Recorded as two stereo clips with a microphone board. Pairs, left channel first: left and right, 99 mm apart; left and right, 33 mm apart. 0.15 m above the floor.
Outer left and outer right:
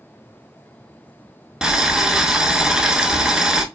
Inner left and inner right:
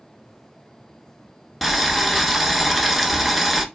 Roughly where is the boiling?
Centre.